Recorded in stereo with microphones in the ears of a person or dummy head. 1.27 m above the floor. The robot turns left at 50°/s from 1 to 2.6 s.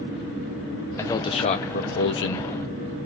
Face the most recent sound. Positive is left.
turn(degrees=80)